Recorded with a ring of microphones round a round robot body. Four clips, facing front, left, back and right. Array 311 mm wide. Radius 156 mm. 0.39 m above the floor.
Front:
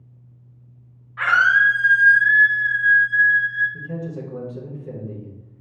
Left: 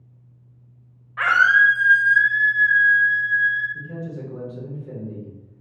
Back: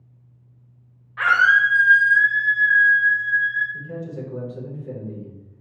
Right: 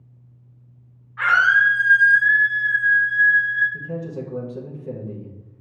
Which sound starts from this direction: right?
A man speaking, at 3.7 s.